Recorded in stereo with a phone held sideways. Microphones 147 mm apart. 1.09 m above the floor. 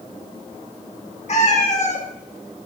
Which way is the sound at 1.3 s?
50° left (ahead or behind).